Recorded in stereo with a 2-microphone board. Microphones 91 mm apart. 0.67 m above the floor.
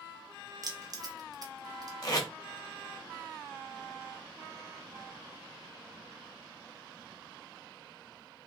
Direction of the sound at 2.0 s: 40° left (ahead or behind).